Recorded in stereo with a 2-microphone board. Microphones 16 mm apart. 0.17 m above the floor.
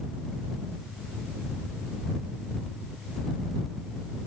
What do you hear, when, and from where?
Only background noise.